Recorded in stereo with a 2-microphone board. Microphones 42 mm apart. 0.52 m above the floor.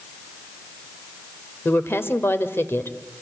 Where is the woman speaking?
65° left (ahead or behind), 1.7 m.